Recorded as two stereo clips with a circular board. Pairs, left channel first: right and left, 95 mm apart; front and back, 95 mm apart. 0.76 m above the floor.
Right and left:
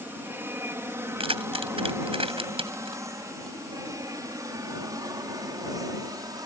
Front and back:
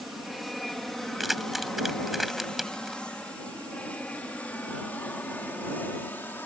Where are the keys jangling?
90° left.